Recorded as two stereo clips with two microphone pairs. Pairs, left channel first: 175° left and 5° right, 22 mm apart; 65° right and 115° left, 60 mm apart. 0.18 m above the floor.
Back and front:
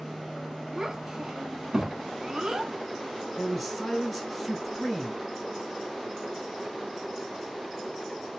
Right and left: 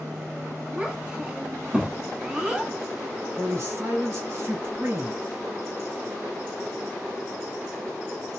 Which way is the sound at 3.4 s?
90° left.